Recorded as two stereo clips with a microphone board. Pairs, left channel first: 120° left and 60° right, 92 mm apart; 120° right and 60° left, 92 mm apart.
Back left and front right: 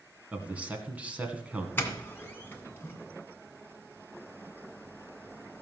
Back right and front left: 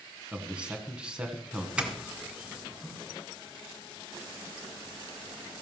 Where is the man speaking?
5° right, 1.7 m.